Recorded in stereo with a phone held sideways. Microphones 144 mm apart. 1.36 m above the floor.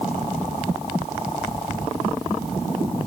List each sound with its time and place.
Only background noise.